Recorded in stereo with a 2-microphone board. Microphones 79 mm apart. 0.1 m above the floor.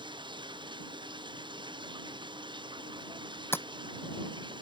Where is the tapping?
30° left (ahead or behind).